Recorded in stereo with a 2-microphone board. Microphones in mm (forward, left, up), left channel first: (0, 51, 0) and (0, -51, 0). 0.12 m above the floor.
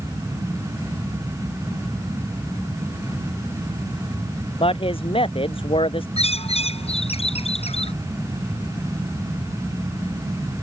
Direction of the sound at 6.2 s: 75° left (ahead or behind).